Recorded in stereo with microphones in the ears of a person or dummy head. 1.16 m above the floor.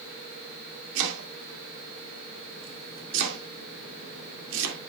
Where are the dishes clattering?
No dishes clattering in this recording.